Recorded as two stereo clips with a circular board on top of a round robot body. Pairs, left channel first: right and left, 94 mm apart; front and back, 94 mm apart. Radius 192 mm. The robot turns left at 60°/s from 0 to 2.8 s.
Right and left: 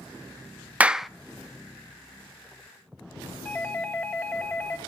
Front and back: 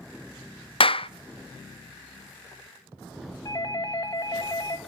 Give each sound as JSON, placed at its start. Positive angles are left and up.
{"t": 0.8, "sound": "a clap", "azimuth_deg": 15, "distance_m": 0.6}
{"t": 3.5, "sound": "a doorbell", "azimuth_deg": -30, "distance_m": 2.5}